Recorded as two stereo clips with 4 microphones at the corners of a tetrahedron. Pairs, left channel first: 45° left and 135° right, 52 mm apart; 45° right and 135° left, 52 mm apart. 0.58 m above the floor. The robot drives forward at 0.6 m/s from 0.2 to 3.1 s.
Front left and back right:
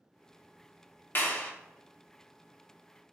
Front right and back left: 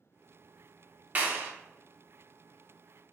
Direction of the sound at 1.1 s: 85° left.